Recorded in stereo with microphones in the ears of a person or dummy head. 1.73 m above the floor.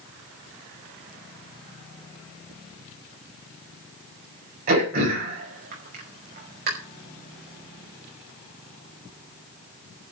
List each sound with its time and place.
4.7 s throat clearing: 45° right (ahead or behind), 5.5 m